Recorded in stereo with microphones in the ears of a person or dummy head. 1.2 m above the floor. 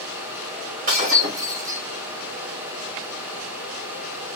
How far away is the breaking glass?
About 2 m.